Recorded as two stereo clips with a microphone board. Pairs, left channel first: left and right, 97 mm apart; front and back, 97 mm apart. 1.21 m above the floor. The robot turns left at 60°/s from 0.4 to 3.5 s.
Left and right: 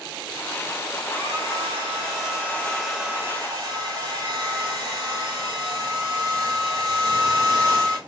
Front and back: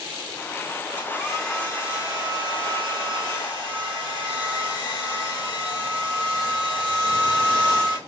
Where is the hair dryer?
110° left, 2 m; by 8.0 s 40° right, 2 m.